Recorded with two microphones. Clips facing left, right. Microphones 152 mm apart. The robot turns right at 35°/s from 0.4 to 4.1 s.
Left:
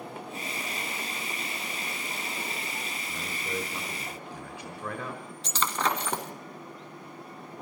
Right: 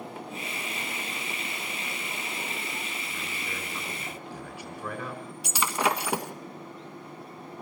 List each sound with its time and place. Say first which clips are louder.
3.1 s a man speaking: left 3 dB; 130° left, 4.5 m; by 5.2 s 165° left, 4.5 m
5.4 s breaking glass: right 2 dB; 10° right (ahead or behind), 1.7 m